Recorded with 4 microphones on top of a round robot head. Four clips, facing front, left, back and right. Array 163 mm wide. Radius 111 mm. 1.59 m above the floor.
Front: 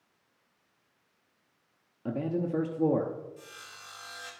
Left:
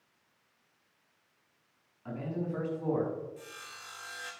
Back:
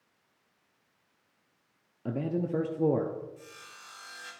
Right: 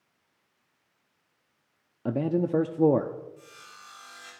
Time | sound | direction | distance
2.0 | a man speaking | 95° right | 0.7 m
3.4 | sawing | 70° left | 3.5 m